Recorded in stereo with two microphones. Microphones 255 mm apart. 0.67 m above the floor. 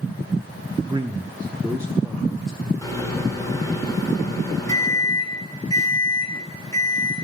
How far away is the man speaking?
About 0.5 m.